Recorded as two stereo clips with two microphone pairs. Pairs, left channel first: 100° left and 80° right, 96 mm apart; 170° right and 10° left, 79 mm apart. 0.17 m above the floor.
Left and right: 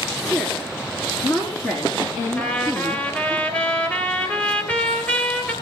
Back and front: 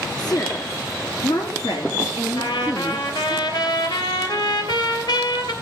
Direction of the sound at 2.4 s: 175° left.